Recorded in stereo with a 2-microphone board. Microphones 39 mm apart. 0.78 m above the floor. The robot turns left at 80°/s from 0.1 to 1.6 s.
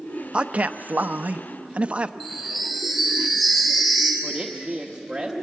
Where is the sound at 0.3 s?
35° right, 0.6 m; by 2.1 s 135° right, 0.6 m.